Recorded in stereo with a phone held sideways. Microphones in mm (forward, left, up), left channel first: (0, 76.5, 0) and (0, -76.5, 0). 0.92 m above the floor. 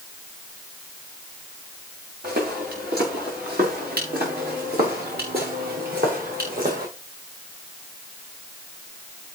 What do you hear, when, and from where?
2.2 s footsteps: 85° right, 8.5 m; by 6.9 s 70° right (ahead or behind), 6 m